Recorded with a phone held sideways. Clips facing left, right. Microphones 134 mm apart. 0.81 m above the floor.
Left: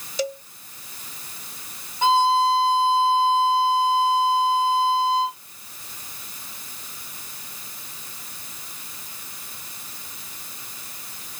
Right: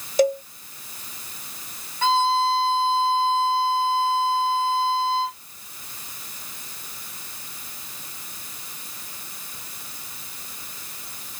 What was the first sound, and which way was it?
A cowbell, 50° right (ahead or behind).